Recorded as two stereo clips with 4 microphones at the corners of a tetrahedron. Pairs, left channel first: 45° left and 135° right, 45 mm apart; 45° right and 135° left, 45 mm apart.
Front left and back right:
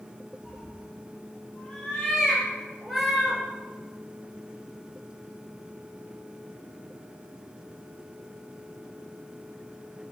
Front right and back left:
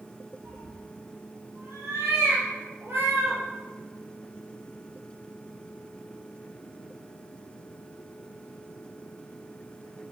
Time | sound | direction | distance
0.4 | a cat meowing | 110° left | 4 m